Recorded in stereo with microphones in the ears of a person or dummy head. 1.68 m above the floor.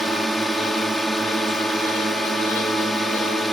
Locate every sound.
0.0 s a drone: 5° left (ahead or behind)